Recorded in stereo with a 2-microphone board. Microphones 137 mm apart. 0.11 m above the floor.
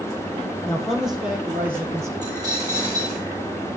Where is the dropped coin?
30° right (ahead or behind), 4 m.